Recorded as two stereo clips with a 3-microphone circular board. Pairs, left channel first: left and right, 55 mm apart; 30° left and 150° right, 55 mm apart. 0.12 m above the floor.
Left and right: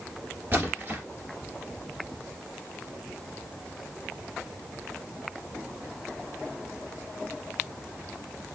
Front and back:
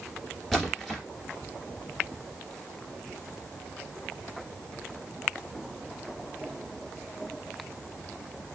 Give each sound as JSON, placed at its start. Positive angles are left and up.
{"t": 0.5, "sound": "a splash", "azimuth_deg": -50, "distance_m": 1.8}